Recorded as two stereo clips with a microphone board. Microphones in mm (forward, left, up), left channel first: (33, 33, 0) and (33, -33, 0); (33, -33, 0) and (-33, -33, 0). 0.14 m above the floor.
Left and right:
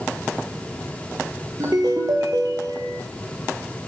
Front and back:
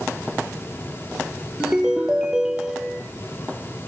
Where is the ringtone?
105° right, 2.5 m.